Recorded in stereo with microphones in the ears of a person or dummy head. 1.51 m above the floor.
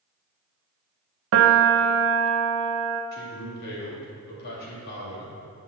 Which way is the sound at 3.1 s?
55° left (ahead or behind).